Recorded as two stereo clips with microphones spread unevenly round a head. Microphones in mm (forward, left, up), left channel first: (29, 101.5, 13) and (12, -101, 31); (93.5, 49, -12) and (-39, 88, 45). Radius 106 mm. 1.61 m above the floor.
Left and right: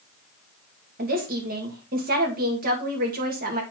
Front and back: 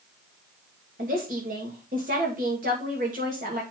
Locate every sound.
1.0 s a woman speaking: 145° right, 2.5 m